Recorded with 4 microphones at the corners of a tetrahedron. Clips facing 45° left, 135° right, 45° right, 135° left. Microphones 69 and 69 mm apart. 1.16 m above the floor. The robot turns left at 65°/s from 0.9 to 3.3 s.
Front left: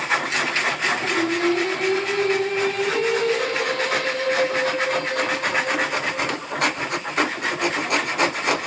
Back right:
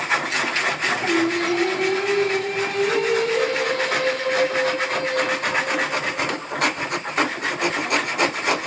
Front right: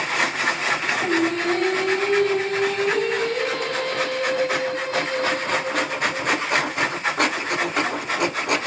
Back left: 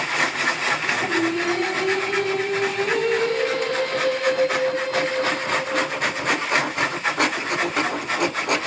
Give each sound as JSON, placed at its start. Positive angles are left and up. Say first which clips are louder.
{"t": 1.0, "sound": "singing", "louder": "back right 2 dB, front right 2 dB", "azimuth_deg": -60, "distance_m": 2.5}